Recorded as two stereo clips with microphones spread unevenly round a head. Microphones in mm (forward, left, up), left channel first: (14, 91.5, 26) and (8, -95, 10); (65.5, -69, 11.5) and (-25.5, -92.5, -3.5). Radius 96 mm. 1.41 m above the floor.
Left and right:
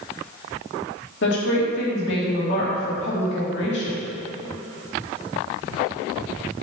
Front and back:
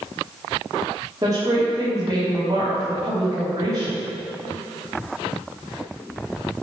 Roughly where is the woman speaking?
Behind left.